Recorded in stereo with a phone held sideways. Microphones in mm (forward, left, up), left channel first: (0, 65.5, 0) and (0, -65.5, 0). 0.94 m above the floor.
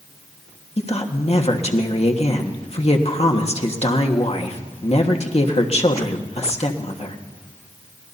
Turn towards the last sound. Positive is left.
turn(degrees=55)  # may be behind; listen again after turning